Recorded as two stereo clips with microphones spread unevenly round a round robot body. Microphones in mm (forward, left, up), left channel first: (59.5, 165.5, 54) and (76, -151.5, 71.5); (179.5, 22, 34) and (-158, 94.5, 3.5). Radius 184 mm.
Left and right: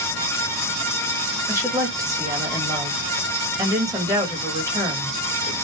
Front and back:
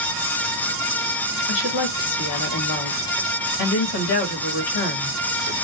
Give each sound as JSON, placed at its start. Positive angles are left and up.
{"t": 1.5, "sound": "a woman speaking", "azimuth_deg": -5, "distance_m": 1.7}